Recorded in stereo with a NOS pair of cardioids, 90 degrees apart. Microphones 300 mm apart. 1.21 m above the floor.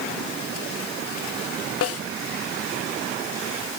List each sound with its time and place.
1.8 s a snare drum: 50° left, 1.1 m